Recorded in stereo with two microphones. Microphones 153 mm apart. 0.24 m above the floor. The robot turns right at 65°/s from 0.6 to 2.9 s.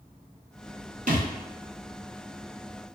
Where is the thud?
65° right (ahead or behind), 1.0 m; by 1.3 s 75° right (ahead or behind), 1.0 m.